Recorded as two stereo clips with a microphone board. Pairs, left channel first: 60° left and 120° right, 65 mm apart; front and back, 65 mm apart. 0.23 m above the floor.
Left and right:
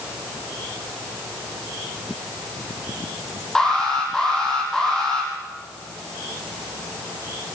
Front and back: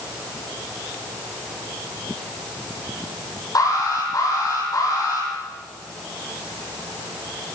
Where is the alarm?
20° right, 7.5 m.